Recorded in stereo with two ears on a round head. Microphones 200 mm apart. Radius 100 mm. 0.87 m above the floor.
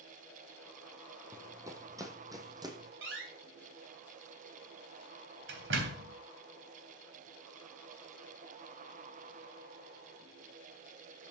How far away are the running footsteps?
About 1.8 m.